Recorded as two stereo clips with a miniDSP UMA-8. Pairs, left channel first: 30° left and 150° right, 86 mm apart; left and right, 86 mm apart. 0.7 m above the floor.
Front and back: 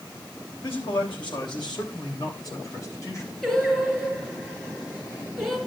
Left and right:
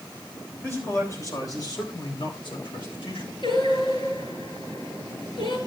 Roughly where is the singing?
Left.